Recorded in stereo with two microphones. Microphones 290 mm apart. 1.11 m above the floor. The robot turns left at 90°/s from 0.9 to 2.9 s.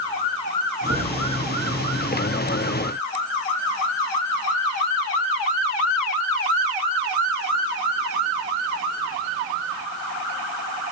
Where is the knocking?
55° left (ahead or behind), 9 m; by 1.1 s 35° left (ahead or behind), 9 m.